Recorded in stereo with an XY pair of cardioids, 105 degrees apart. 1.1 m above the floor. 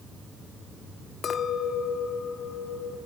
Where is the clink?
50° left, 1.2 m.